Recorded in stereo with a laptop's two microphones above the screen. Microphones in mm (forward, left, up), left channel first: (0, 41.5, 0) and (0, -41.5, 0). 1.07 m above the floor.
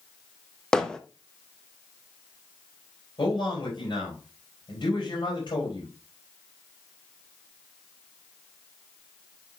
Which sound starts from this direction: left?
A man speaking, at 3.2 s.